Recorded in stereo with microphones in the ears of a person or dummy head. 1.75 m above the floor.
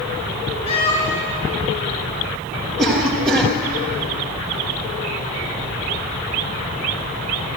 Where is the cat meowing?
30° left (ahead or behind), 2.5 m.